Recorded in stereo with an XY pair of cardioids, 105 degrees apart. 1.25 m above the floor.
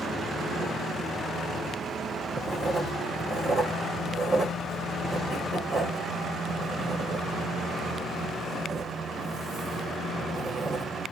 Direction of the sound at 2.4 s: 45° right.